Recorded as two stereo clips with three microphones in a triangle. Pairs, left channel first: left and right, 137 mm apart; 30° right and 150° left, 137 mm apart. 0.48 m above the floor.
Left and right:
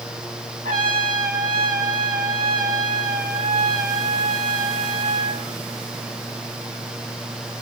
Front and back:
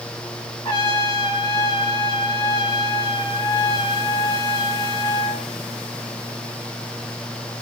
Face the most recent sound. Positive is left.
turn(degrees=-90)